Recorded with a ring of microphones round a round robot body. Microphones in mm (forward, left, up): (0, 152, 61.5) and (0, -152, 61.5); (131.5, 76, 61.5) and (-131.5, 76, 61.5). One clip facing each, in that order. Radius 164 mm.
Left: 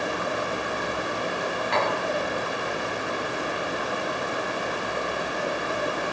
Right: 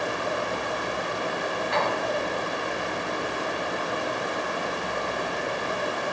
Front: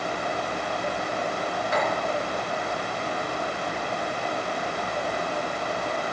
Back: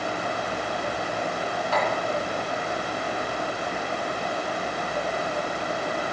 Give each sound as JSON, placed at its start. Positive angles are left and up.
{"t": 1.7, "sound": "tapping", "azimuth_deg": 70, "distance_m": 4.5}